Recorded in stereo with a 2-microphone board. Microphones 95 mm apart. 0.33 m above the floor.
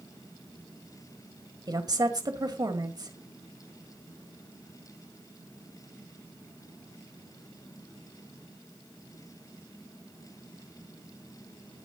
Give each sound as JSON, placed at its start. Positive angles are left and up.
{"t": 1.7, "sound": "a woman speaking", "side_deg": -45, "distance_m": 1.5}